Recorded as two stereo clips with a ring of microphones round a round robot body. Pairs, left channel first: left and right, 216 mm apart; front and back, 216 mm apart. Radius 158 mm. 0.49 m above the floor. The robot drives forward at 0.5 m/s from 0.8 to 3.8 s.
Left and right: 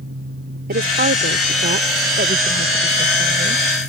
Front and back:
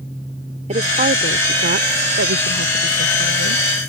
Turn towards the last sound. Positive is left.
turn(degrees=-155)